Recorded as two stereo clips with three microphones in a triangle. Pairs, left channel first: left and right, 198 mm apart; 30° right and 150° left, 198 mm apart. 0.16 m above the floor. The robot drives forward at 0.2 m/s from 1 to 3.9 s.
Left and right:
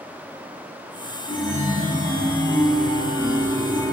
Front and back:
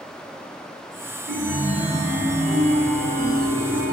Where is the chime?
155° left, 1.9 m; by 3.9 s 165° left, 2.5 m.